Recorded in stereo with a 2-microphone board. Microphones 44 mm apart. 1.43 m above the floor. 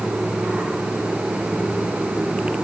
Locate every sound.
Only background noise.